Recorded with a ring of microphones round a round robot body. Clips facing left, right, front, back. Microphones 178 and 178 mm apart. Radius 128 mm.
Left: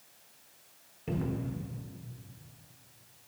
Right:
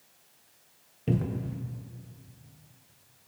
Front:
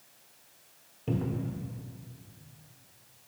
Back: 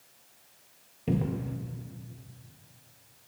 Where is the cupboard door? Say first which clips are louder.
Right 3 dB, back 2 dB; 110° right, 0.6 m.